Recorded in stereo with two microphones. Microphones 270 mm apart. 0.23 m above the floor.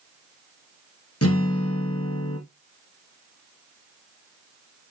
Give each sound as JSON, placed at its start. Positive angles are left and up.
{"t": 1.2, "sound": "a guitar", "side_deg": 60, "distance_m": 2.5}